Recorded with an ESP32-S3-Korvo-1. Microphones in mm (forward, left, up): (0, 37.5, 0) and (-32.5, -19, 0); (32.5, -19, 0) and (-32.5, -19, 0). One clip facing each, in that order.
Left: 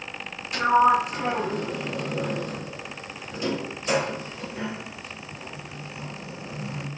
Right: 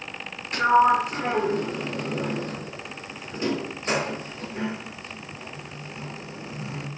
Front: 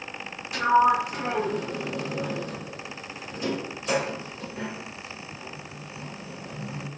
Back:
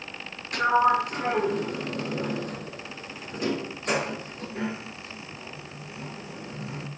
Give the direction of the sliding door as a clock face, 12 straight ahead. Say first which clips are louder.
Right 1 dB, front 1 dB; 5 o'clock.